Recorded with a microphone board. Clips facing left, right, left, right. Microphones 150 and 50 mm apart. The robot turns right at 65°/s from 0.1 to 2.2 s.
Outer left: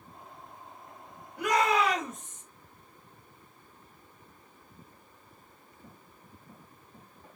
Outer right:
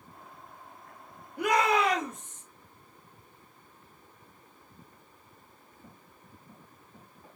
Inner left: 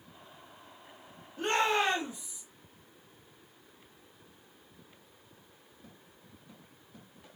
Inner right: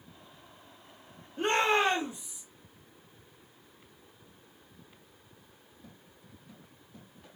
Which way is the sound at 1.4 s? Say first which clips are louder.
Outer right 1 dB, inner right 2 dB; 60° right.